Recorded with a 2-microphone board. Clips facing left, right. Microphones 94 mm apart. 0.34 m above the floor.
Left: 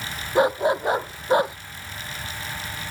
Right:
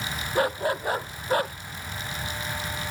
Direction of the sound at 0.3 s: 20° left (ahead or behind).